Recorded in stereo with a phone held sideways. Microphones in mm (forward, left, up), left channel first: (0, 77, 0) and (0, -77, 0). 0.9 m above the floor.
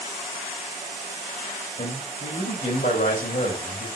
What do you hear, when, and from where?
1.8 s a man speaking: 70° left (ahead or behind), 3.5 m